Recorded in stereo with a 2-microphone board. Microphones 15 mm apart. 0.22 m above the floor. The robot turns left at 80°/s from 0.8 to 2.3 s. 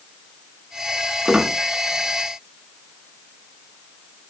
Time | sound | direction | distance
1.2 | a squeak | 55° right (ahead or behind) | 0.6 m